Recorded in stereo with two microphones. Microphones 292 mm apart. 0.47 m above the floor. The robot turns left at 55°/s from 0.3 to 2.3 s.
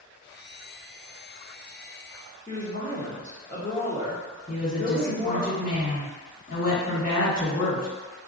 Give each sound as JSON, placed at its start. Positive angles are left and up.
{"t": 2.5, "sound": "a woman speaking", "side_deg": 25, "distance_m": 0.9}
{"t": 4.5, "sound": "a woman speaking", "side_deg": 30, "distance_m": 1.4}